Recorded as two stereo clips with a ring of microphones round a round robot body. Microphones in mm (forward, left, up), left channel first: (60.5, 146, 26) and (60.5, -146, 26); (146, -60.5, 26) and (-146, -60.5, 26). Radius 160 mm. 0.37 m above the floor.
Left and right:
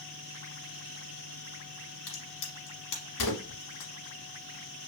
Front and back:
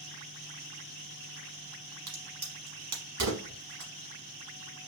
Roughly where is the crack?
Behind left.